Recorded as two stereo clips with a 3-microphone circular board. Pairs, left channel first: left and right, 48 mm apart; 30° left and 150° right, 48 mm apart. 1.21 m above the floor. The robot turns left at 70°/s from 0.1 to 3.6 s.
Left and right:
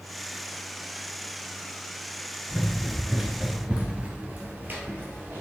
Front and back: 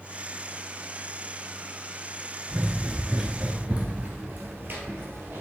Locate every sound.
2.5 s running footsteps: 175° left, 1.2 m; by 5.4 s 120° right, 2.5 m